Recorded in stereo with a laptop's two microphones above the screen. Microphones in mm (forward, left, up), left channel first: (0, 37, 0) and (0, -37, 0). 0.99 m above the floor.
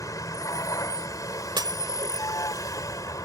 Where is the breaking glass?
75° right (ahead or behind).